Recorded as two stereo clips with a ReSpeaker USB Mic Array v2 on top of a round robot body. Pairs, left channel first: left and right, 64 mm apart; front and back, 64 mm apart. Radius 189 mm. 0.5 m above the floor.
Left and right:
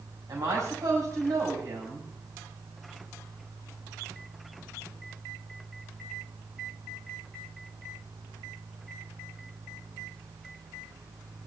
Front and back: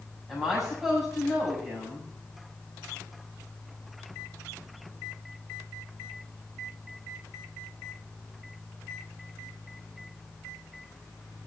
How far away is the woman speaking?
About 5.5 m.